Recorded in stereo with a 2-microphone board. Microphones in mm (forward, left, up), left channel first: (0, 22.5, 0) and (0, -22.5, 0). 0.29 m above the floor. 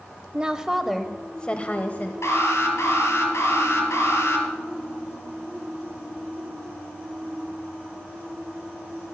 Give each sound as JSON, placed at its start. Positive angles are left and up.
{"t": 0.3, "sound": "a woman speaking", "side_deg": -25, "distance_m": 1.0}
{"t": 2.2, "sound": "an alarm", "side_deg": 80, "distance_m": 4.0}